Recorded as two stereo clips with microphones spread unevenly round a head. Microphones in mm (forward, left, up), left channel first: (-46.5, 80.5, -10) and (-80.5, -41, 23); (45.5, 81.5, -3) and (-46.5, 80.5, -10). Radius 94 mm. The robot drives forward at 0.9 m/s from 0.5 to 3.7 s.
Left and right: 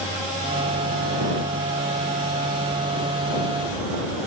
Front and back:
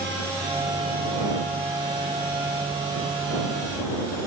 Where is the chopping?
I don't hear chopping.